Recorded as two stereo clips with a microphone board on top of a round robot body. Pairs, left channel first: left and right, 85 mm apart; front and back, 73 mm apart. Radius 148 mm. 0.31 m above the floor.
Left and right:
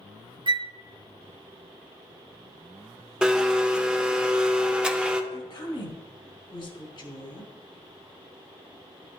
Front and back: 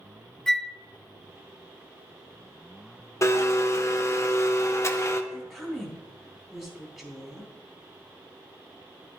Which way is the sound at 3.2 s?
15° right.